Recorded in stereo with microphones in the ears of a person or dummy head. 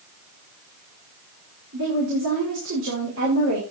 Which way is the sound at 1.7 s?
75° right (ahead or behind).